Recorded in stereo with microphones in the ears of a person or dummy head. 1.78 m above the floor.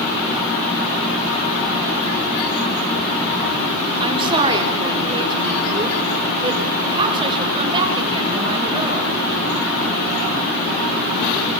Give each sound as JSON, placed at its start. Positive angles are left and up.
{"t": 4.0, "sound": "a woman speaking", "side_deg": -25, "distance_m": 4.0}